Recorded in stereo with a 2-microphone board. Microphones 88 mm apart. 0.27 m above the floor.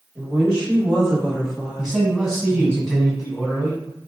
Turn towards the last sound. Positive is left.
turn(degrees=0)  # may be behind; listen again after turning